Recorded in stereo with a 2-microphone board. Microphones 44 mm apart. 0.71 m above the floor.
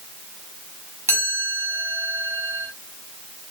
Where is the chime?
70° right (ahead or behind), 6.5 m.